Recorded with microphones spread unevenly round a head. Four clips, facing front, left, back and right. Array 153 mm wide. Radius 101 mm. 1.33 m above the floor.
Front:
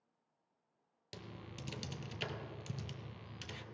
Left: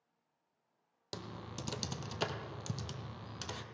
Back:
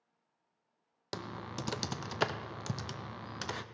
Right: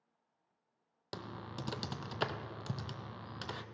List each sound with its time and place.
1.1 s typing on a keyboard: 175° right, 0.6 m